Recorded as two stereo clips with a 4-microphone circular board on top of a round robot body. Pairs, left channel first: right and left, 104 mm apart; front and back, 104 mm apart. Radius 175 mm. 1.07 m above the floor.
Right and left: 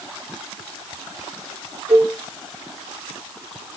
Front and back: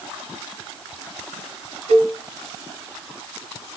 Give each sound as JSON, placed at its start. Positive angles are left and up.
{"t": 1.9, "sound": "a cowbell", "azimuth_deg": 165, "distance_m": 4.0}